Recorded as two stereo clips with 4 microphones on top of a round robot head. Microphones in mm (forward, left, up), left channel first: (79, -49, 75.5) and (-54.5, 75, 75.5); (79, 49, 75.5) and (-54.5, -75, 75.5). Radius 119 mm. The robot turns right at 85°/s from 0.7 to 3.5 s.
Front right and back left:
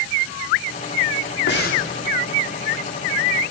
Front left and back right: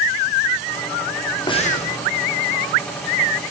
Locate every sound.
1.5 s breathing: 25° right, 3 m; by 1.8 s 10° left, 3 m